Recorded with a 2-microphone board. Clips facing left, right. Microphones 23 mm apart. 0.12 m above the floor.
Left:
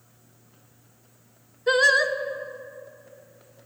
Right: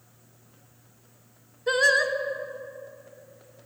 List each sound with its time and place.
1.7 s singing: 10° left (ahead or behind), 0.8 m